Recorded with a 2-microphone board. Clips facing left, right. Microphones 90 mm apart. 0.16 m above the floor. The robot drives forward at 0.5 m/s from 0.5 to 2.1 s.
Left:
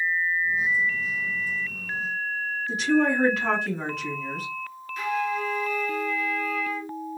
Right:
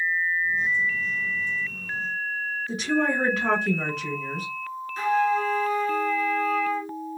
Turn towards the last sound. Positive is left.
turn(degrees=-30)  # may be behind; listen again after turning